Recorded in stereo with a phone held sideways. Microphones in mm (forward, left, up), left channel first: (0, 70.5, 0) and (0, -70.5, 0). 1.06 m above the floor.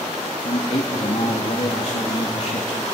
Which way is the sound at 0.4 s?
60° left (ahead or behind).